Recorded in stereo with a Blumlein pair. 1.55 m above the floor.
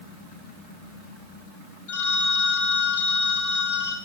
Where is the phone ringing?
60° left, 1.3 m.